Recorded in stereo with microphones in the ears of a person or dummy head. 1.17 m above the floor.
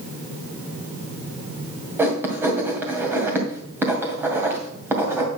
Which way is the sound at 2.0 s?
10° right (ahead or behind).